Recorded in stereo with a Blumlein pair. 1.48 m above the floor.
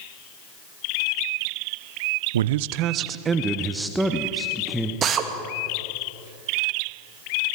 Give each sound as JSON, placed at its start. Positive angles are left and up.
{"t": 2.3, "sound": "a man speaking", "azimuth_deg": -65, "distance_m": 0.7}
{"t": 5.0, "sound": "a drill", "azimuth_deg": -25, "distance_m": 2.0}